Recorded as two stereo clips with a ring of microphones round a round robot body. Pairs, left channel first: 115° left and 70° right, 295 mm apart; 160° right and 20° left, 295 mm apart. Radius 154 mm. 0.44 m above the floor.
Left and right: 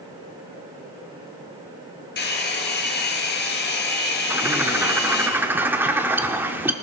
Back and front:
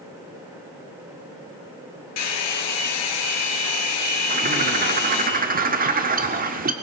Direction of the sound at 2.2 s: 165° left.